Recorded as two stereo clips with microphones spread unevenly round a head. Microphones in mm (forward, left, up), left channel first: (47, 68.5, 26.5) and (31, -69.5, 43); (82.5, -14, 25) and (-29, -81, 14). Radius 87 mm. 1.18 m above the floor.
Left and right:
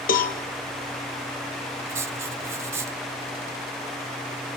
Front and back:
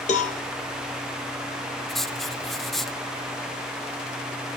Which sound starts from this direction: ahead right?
Writing, at 1.9 s.